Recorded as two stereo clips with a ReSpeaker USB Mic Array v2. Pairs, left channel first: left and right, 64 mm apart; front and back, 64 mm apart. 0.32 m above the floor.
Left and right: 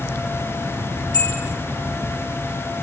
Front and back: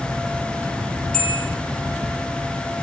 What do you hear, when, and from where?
1.1 s a bell: 85° left, 8 m